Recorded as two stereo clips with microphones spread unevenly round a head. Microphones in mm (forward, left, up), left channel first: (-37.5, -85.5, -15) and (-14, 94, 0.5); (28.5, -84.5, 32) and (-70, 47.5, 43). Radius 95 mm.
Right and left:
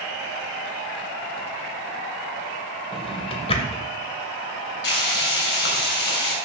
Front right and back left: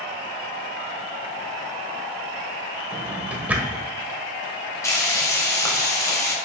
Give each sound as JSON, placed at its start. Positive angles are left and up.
{"t": 2.9, "sound": "a drawer", "azimuth_deg": -155, "distance_m": 1.3}
{"t": 4.8, "sound": "frying", "azimuth_deg": -125, "distance_m": 2.5}